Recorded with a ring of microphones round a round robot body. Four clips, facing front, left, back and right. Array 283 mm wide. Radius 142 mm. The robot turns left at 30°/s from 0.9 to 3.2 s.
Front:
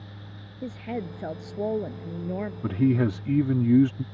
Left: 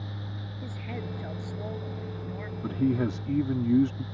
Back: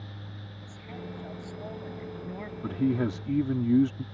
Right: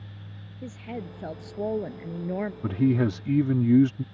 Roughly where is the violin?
I don't hear a violin.